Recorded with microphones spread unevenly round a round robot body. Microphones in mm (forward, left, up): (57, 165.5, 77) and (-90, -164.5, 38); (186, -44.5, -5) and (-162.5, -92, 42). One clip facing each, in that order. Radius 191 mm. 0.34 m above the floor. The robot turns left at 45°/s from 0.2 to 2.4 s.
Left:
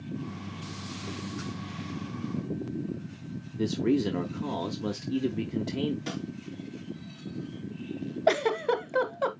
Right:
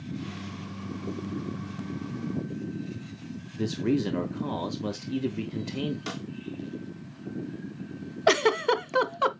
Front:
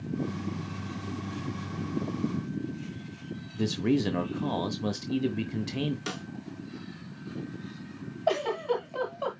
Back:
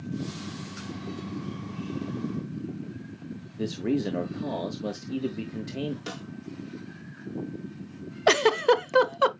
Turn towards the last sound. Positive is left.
turn(degrees=-170)